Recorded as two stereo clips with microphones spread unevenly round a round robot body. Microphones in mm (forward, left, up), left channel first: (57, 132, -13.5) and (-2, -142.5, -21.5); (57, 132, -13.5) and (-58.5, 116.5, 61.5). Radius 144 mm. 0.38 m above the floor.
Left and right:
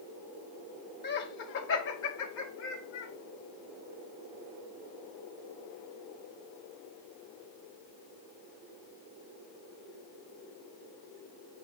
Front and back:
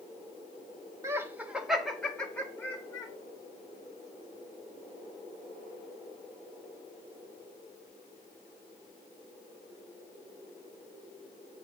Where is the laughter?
80° left, 0.9 m; by 3.1 s 45° left, 1.6 m.